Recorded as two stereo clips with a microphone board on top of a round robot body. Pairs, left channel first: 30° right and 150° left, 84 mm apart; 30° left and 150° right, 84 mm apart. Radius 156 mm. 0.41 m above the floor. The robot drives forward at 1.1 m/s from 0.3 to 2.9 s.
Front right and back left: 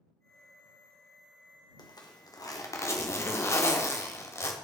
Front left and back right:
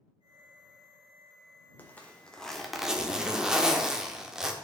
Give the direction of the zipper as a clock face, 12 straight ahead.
1 o'clock.